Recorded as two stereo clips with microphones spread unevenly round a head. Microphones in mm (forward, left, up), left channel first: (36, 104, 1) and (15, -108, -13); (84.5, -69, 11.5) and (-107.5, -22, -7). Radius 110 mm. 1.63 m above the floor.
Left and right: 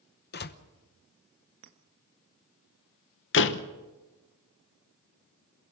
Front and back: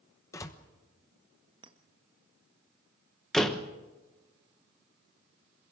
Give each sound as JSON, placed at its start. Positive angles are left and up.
{"t": 0.3, "sound": "a door slam", "azimuth_deg": 60, "distance_m": 1.0}
{"t": 1.6, "sound": "a clink", "azimuth_deg": -130, "distance_m": 1.5}
{"t": 3.3, "sound": "a door slam", "azimuth_deg": 70, "distance_m": 1.0}